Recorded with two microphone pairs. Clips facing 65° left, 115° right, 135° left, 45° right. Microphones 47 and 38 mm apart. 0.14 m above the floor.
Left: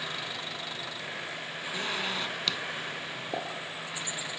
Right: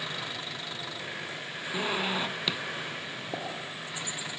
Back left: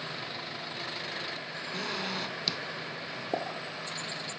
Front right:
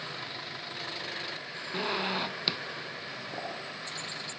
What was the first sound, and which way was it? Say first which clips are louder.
A zipper: right 3 dB, front right 4 dB; 60° right.